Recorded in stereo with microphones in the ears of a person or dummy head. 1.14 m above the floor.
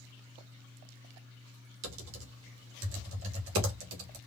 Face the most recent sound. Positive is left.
turn(degrees=-75)  # may be behind; listen again after turning